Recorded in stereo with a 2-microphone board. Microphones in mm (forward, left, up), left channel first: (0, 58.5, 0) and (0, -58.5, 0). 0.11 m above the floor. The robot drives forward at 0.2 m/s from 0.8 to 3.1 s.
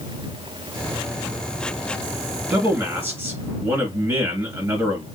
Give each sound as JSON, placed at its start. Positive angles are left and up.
{"t": 2.5, "sound": "a man speaking", "side_deg": -25, "distance_m": 1.6}